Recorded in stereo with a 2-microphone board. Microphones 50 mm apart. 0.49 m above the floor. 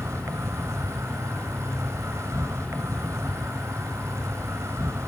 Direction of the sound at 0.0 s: 70° right (ahead or behind).